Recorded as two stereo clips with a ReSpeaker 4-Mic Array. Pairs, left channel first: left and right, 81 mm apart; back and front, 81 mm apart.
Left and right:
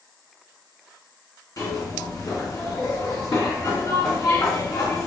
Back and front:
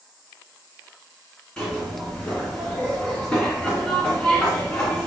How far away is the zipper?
About 2 m.